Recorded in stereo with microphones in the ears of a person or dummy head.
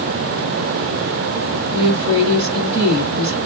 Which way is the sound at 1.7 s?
20° right (ahead or behind).